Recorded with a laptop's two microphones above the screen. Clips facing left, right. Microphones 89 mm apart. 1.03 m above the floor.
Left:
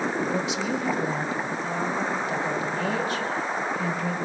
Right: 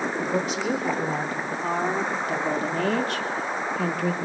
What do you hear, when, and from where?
0.2 s a woman speaking: 40° right (ahead or behind), 3.5 m; by 4.1 s 70° right (ahead or behind), 2 m